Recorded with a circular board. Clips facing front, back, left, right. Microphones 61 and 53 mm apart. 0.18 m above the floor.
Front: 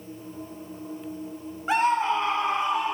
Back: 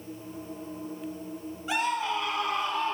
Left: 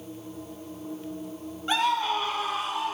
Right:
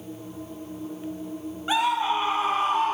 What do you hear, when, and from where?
1.7 s a scream: 20° right, 1.4 m; by 3.0 s 70° right, 1.4 m